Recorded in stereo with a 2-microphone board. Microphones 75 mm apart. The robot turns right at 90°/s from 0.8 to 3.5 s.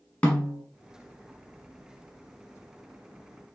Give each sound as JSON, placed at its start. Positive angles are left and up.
{"t": 0.2, "sound": "a snare drum", "side_deg": 20, "distance_m": 1.2}